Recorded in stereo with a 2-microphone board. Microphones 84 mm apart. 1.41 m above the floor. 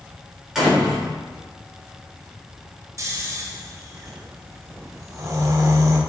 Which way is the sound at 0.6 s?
5° right (ahead or behind).